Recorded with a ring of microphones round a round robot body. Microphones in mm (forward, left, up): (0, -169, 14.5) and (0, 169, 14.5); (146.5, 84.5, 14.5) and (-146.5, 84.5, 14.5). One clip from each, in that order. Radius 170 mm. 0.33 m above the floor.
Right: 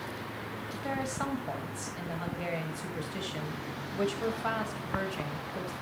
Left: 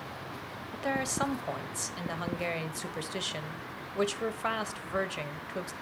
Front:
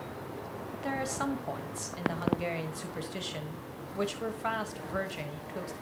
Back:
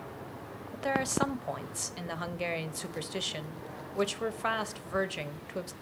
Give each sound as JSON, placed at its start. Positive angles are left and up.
{"t": 0.7, "sound": "a woman speaking", "azimuth_deg": 140, "distance_m": 1.4}